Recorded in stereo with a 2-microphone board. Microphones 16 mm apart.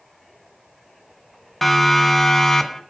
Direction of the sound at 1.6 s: 10° left (ahead or behind).